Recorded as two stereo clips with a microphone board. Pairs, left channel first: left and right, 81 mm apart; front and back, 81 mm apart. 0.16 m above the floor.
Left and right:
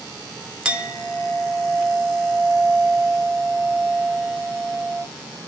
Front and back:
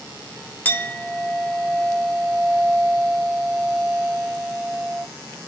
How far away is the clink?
About 0.7 m.